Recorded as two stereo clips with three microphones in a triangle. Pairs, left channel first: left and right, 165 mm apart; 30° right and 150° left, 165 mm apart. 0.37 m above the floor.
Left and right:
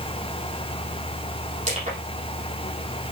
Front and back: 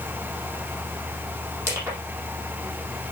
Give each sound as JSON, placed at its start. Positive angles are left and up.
{"t": 1.7, "sound": "crushing", "azimuth_deg": -135, "distance_m": 7.0}